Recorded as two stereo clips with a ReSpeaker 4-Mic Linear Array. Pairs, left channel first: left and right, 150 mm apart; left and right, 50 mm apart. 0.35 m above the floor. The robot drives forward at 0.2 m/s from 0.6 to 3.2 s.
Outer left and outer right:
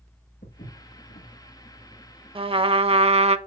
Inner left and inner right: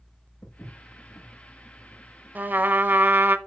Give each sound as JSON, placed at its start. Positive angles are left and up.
{"t": 0.4, "sound": "footsteps", "side_deg": 75, "distance_m": 3.5}
{"t": 2.4, "sound": "a trumpet", "side_deg": -35, "distance_m": 0.7}